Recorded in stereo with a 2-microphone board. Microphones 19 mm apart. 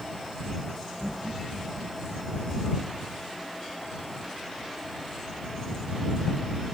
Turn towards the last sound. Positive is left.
turn(degrees=-65)  # may be behind; listen again after turning